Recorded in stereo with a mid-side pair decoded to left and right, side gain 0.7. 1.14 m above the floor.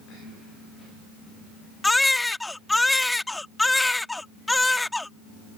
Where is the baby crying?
10° left.